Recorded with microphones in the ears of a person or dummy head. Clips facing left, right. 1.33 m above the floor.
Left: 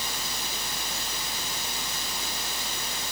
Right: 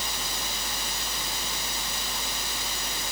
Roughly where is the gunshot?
No gunshot in this recording.